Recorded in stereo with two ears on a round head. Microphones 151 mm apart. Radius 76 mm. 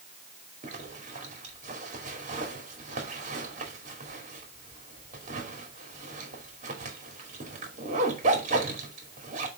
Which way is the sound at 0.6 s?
45° right (ahead or behind).